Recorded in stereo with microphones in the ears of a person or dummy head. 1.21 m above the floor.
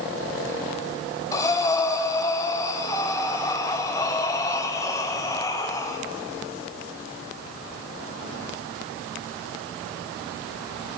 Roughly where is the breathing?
Centre.